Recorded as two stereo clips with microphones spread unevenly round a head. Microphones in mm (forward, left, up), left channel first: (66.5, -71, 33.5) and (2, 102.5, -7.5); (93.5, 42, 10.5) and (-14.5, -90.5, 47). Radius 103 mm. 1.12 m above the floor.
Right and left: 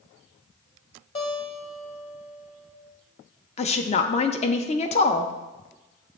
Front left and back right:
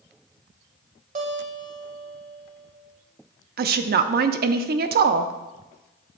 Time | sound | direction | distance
1.1 | a guitar | 110° right | 1.3 m
3.6 | a woman speaking | 130° right | 0.5 m